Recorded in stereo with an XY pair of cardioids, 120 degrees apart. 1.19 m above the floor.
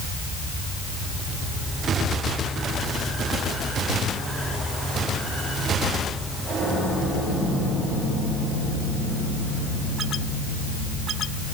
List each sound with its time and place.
Only background noise.